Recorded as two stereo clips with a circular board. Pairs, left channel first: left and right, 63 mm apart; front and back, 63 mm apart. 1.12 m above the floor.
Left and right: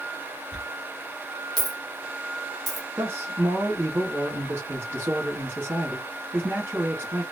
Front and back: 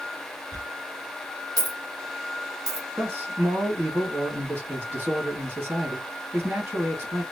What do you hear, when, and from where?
0.5 s a dropped coin: straight behind, 2 m
3.0 s a man speaking: 135° right, 2.5 m